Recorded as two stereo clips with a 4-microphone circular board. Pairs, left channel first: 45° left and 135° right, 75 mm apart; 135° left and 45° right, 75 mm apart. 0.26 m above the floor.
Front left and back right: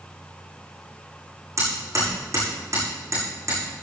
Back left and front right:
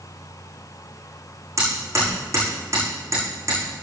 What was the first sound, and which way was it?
Hammering, 90° right.